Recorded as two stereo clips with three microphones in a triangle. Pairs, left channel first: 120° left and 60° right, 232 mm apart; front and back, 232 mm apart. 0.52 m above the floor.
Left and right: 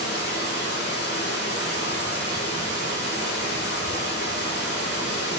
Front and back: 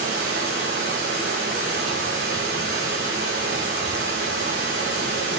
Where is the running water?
160° left, 7 m.